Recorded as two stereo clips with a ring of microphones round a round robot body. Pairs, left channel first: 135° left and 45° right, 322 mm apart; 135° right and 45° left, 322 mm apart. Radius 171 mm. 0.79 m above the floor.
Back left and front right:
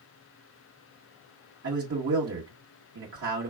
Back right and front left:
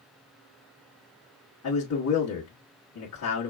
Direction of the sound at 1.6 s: 95° right.